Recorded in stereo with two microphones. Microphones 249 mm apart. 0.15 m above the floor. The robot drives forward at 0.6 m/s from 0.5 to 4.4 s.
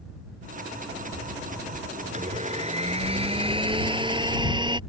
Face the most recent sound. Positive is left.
turn(degrees=-20)  # may be behind; listen again after turning